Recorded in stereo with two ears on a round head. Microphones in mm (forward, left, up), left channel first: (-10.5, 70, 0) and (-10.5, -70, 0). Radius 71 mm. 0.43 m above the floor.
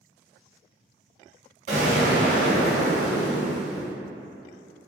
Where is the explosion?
50° right (ahead or behind), 1.5 m.